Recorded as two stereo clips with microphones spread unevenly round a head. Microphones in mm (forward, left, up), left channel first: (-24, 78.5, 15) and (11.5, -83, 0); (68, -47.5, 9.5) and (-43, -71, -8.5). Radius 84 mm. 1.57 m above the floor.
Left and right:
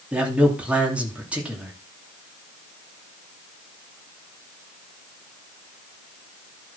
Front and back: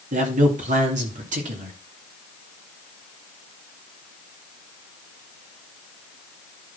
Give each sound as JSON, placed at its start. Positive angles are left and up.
{"t": 0.1, "sound": "a man speaking", "azimuth_deg": -160, "distance_m": 3.0}